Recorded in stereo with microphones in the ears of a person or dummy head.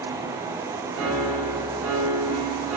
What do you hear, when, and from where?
0.9 s a piano: 85° right, 4.5 m